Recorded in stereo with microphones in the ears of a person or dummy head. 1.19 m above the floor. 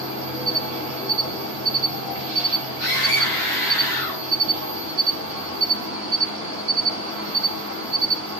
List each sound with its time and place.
0.0 s an insect: 65° right (ahead or behind), 0.9 m
2.8 s a scream: 55° right (ahead or behind), 1.9 m